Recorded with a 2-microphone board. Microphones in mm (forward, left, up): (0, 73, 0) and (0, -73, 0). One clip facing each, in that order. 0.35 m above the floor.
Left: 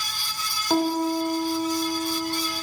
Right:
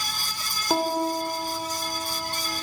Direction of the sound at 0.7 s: 10° right (ahead or behind).